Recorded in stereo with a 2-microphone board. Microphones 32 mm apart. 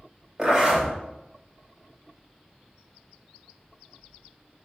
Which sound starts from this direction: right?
A zipper, at 0.4 s.